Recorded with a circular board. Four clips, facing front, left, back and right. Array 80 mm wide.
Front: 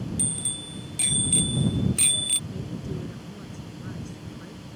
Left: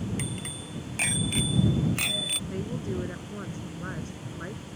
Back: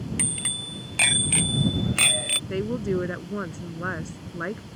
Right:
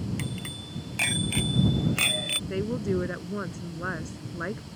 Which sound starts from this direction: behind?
A bicycle bell, at 0.2 s.